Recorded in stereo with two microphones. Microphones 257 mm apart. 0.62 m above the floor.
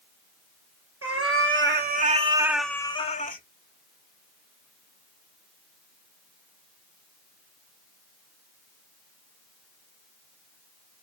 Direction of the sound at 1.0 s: 60° right (ahead or behind).